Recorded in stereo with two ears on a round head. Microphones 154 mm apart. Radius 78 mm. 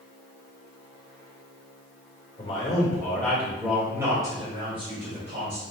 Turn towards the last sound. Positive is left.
turn(degrees=-40)  # may be behind; listen again after turning